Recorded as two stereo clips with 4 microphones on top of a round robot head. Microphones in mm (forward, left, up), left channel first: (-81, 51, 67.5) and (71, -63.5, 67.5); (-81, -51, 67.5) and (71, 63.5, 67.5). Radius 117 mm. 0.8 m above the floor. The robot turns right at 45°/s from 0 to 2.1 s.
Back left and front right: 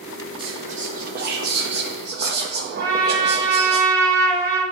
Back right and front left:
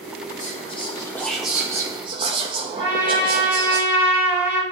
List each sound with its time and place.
0.4 s whispering: 100° right, 0.6 m; by 3.8 s 20° right, 0.6 m
2.8 s a trumpet: 110° right, 3 m